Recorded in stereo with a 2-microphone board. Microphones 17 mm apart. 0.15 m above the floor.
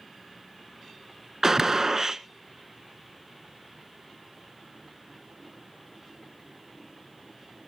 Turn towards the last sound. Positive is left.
turn(degrees=-30)  # may be behind; listen again after turning